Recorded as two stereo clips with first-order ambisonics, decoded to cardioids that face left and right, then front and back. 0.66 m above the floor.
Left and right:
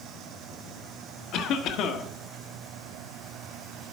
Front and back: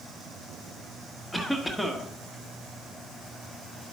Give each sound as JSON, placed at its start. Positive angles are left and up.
{"t": 1.3, "sound": "a cough", "azimuth_deg": 90, "distance_m": 1.5}